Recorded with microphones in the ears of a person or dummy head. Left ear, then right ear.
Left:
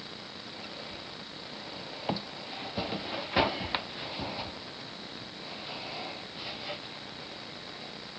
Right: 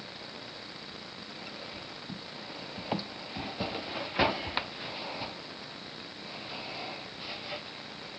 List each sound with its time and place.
Only background noise.